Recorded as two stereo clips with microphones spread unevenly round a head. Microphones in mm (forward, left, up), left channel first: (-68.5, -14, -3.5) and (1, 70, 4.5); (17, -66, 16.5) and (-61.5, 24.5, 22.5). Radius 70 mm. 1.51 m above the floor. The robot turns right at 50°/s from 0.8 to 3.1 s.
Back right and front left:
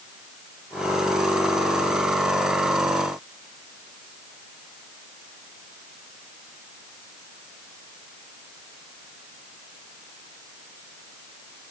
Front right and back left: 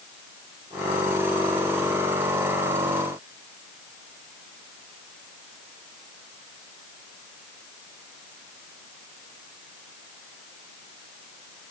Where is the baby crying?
I don't hear a baby crying.